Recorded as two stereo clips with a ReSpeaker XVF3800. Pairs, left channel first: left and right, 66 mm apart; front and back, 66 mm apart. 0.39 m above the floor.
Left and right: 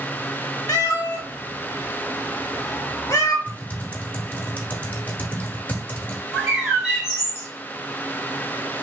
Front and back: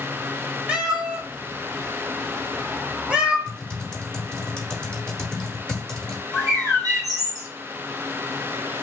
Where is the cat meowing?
110° left, 0.7 m.